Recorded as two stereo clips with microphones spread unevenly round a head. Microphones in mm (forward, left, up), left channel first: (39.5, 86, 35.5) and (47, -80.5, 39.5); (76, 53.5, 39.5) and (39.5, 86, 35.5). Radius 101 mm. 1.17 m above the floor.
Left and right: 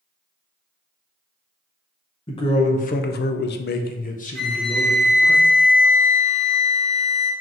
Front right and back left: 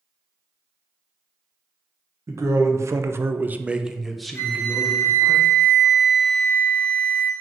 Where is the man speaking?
155° left, 0.7 m; by 5.3 s 30° left, 1.2 m.